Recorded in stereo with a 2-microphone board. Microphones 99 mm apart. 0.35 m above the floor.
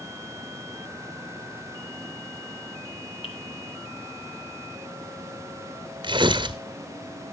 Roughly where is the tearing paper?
Right.